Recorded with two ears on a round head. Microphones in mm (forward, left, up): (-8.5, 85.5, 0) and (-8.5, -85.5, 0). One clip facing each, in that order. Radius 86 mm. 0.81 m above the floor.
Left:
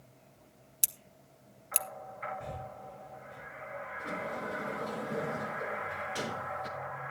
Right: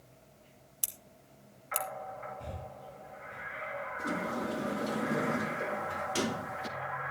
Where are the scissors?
20° left (ahead or behind), 1.2 m.